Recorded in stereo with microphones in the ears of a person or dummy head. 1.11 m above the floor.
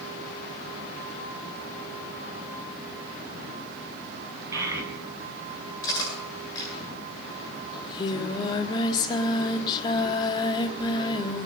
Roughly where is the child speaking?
Centre.